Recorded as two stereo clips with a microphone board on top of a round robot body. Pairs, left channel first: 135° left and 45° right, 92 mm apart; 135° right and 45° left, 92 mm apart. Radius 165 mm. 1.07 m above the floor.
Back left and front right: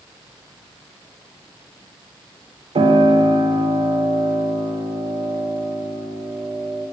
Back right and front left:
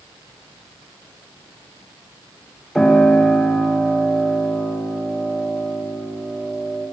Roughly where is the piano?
Ahead right.